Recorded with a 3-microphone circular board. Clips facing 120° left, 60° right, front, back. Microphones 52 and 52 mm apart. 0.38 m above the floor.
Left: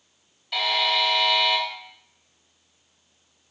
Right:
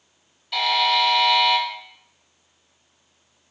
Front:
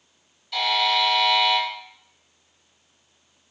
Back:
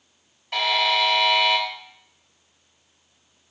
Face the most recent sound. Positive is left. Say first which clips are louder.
# right 4 dB, back 1 dB
turn(degrees=-150)